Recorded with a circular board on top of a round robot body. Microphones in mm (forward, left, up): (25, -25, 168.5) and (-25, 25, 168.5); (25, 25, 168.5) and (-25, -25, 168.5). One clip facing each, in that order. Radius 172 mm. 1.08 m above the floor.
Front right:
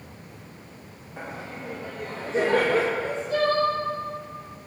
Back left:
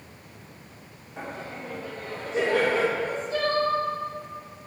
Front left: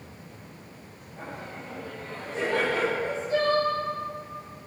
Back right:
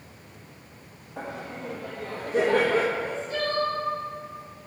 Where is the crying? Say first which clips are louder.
Front right 3 dB, front left 3 dB; 15° right, 4.5 m.